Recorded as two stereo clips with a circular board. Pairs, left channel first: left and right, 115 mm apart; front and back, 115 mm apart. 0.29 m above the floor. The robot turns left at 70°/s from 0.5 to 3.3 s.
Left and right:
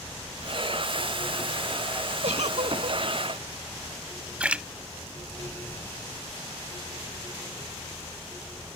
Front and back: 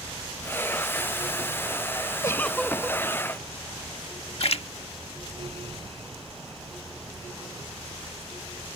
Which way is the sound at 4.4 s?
10° right.